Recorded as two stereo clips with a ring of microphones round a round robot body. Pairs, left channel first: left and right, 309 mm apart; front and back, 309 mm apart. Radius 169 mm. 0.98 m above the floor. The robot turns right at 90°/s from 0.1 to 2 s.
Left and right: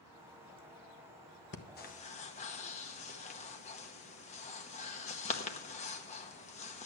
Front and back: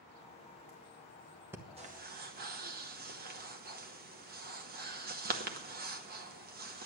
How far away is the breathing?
About 1.0 m.